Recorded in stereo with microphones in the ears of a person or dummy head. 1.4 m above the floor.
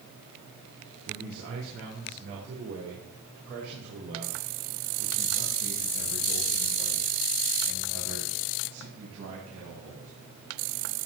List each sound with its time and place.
1.1 s a man speaking: 60° right (ahead or behind), 3.5 m; by 10.1 s 75° right (ahead or behind), 9.5 m